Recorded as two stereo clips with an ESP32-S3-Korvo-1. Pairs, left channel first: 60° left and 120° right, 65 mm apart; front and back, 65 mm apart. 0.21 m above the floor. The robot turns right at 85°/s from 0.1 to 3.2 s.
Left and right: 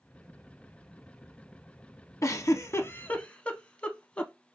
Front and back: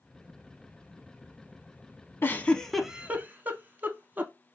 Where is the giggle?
40° left, 0.5 m; by 4.3 s 125° left, 0.5 m.